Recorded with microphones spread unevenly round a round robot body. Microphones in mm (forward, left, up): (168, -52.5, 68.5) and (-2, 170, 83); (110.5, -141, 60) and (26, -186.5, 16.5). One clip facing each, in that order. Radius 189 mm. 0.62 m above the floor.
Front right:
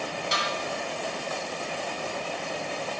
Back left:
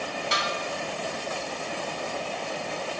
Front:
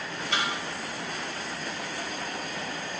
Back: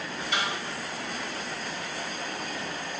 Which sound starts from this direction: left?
A snare drum, at 0.3 s.